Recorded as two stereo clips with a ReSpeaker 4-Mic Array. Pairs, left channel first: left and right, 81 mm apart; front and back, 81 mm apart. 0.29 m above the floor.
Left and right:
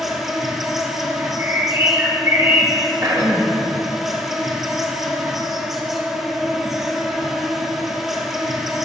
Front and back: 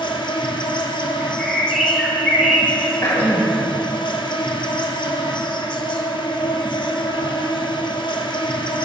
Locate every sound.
0.0 s an insect: 5° right, 0.8 m
1.2 s a bird: 95° right, 1.8 m
3.0 s throat clearing: 55° right, 1.1 m